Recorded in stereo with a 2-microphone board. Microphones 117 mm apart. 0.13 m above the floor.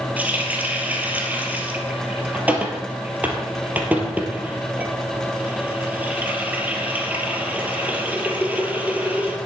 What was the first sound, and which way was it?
A running tap, 15° right (ahead or behind).